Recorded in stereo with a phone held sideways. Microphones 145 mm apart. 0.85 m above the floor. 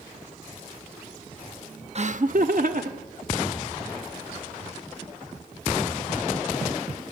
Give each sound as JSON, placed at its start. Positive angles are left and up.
{"t": 1.9, "sound": "laughter", "side_deg": -50, "distance_m": 0.8}